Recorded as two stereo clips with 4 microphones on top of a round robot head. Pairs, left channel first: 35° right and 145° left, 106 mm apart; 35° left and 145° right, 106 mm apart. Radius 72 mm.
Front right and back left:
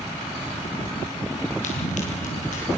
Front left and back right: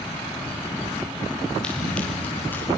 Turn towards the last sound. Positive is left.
turn(degrees=-35)